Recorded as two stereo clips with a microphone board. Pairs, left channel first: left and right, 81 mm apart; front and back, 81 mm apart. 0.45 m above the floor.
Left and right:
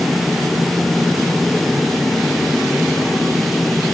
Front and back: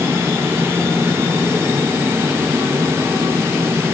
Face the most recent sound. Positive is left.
No sound to turn to.